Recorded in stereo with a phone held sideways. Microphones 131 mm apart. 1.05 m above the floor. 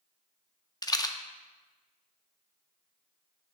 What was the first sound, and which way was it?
A rattle, 30° left (ahead or behind).